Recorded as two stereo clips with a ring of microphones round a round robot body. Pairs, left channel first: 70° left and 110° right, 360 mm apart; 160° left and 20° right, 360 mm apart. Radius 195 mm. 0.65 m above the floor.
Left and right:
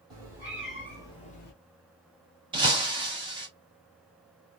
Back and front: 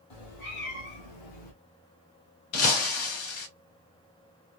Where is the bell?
I don't hear a bell.